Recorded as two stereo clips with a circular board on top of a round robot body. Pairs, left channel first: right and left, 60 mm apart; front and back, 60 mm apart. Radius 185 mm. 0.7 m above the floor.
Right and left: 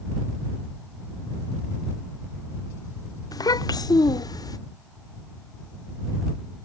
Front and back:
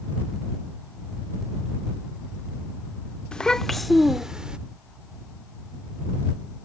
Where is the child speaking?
75° right; by 4.6 s 105° right.